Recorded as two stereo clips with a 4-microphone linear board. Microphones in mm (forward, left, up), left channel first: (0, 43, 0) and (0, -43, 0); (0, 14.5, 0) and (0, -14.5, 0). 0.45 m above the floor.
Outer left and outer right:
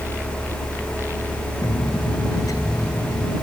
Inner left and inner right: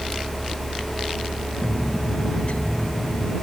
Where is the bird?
45° left (ahead or behind).